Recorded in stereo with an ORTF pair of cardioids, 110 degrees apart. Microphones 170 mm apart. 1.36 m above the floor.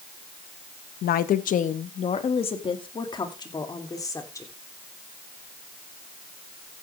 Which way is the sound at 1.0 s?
65° left.